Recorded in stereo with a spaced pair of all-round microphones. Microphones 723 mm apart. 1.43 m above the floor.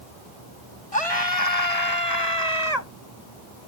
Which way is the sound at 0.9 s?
50° left (ahead or behind).